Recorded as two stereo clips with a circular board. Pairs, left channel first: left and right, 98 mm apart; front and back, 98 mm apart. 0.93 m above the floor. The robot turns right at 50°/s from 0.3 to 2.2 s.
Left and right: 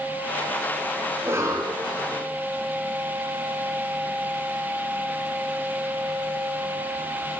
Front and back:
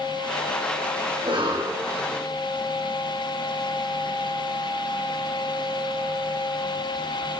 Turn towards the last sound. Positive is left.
turn(degrees=-110)